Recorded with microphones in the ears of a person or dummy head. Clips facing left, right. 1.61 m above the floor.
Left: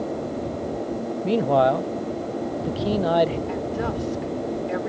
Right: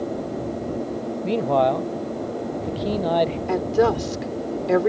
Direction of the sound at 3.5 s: 75° right (ahead or behind).